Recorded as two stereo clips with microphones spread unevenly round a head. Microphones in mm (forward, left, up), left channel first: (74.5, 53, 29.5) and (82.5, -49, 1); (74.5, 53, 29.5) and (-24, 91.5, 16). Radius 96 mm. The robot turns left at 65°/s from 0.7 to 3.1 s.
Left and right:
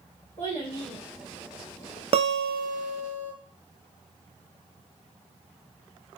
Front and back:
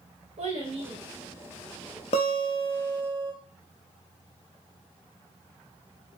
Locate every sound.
0.4 s a child speaking: 165° left, 1.3 m; by 2.0 s 75° left, 1.3 m
2.1 s a guitar: 60° right, 0.6 m; by 3.3 s 120° right, 0.6 m